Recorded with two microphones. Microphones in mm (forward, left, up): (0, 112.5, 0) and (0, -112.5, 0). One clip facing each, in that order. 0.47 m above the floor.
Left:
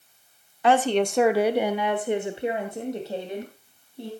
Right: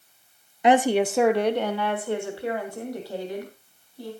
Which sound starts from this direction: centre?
A woman speaking, at 0.6 s.